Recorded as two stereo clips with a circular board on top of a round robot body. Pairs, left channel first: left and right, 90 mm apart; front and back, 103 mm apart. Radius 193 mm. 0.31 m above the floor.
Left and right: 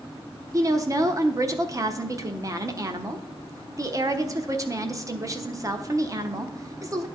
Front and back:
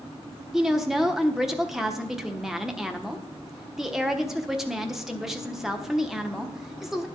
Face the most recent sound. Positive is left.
turn(degrees=-95)